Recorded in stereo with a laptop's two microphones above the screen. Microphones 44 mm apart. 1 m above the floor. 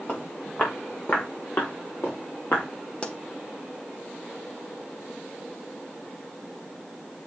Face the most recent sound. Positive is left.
turn(degrees=30)  # may be behind; listen again after turning